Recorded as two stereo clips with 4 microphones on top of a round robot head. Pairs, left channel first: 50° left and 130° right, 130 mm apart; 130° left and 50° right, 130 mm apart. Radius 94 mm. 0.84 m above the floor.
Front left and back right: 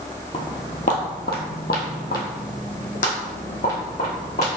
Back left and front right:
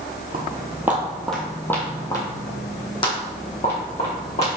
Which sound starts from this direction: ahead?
Footsteps, at 0.3 s.